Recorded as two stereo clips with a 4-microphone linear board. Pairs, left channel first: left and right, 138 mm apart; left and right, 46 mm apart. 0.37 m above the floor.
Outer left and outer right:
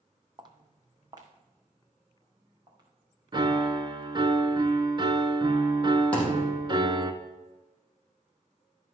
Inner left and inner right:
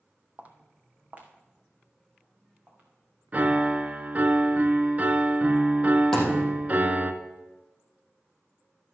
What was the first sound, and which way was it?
Footsteps, 35° right (ahead or behind).